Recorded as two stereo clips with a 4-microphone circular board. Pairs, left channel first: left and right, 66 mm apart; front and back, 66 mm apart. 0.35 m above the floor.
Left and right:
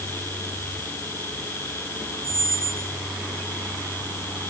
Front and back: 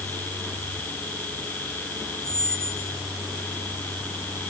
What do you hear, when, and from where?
2.2 s a squeak: 115° left, 2 m